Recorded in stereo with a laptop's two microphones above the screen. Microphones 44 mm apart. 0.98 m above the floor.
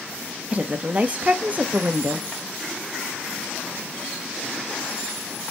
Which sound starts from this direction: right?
A woman speaking, at 0.5 s.